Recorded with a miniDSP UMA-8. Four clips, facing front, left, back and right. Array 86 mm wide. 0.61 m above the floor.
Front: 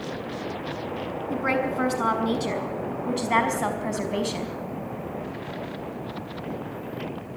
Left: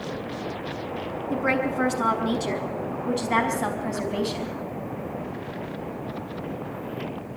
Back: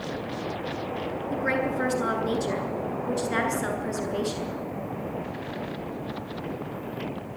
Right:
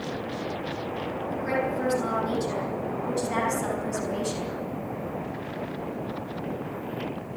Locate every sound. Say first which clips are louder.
1.3 s a woman speaking: left 4 dB, front 2 dB; 40° left, 5.5 m; by 4.6 s 20° left, 4.5 m